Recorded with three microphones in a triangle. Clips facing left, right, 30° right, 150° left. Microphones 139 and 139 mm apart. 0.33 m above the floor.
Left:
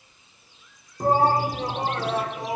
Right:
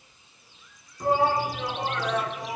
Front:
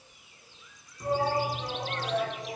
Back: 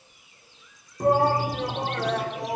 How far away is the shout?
About 3.5 m.